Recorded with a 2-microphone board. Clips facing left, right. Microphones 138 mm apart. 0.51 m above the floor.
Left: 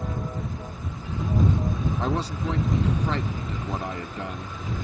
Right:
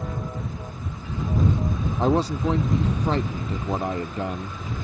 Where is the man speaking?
30° right (ahead or behind).